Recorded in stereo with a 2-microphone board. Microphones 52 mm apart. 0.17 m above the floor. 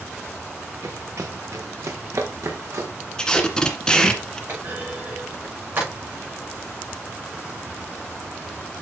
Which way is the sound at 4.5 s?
40° right (ahead or behind).